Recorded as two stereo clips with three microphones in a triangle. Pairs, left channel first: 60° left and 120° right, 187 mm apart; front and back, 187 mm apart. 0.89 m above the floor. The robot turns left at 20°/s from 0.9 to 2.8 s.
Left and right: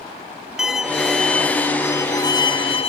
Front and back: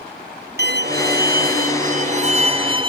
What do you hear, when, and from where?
0.6 s a violin: 155° left, 0.6 m; by 2.9 s 115° left, 0.6 m